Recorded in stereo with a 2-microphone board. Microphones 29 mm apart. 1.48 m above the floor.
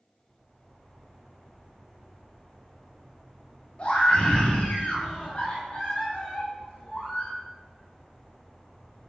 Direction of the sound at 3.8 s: 40° left (ahead or behind).